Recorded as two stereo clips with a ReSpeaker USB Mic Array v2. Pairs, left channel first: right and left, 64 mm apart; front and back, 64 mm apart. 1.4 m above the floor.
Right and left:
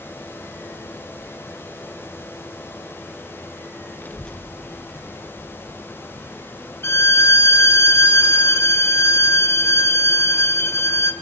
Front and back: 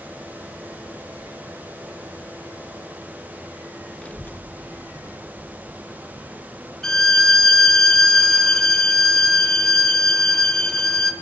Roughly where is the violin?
Right.